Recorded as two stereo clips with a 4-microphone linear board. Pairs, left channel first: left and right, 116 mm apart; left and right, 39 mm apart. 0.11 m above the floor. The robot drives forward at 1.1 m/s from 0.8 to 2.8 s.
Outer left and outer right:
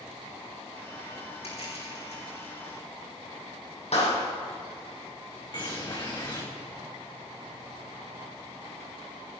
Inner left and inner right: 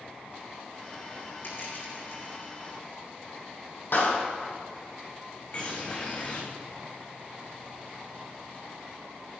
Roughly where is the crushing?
Left.